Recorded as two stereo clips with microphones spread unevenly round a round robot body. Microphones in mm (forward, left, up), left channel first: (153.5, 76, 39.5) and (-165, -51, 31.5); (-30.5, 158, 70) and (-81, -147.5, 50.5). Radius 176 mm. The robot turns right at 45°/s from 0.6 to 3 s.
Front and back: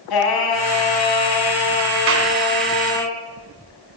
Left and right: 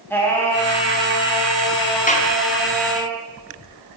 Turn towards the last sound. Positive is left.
turn(degrees=-170)